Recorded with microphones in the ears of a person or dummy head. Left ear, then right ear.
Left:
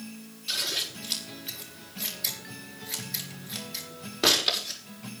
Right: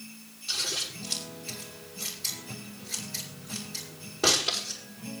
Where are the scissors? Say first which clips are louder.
Left 1 dB; 25° left (ahead or behind), 6 m.